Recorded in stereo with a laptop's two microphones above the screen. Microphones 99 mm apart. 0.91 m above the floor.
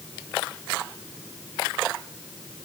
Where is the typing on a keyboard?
No typing on a keyboard in this recording.